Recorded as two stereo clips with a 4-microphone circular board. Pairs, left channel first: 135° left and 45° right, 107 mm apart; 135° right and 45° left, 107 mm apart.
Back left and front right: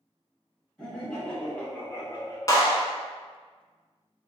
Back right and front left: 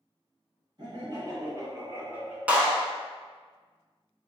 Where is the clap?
110° left, 1.0 m.